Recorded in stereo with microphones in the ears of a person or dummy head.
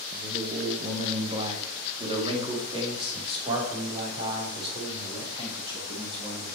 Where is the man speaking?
25° right (ahead or behind), 1.2 m; by 6.5 s 20° right (ahead or behind), 5.5 m.